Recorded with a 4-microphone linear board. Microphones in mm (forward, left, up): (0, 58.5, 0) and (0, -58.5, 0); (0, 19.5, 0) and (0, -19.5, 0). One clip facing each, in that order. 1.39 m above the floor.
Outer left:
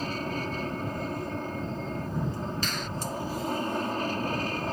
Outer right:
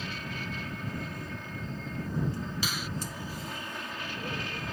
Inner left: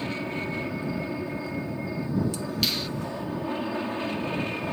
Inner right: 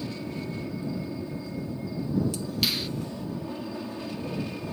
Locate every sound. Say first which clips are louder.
0.0 s an aircraft: outer left 7 dB, inner left 4 dB; 40° left (ahead or behind)
2.6 s a finger snap: outer left 2 dB, even; 10° right (ahead or behind)